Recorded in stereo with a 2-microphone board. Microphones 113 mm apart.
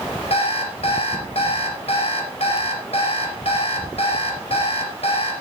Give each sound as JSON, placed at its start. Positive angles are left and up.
{"t": 0.3, "sound": "an alarm clock", "side_deg": 60, "distance_m": 4.5}